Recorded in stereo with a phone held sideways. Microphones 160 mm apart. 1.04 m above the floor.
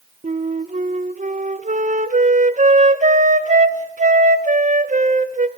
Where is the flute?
50° right (ahead or behind), 0.7 m.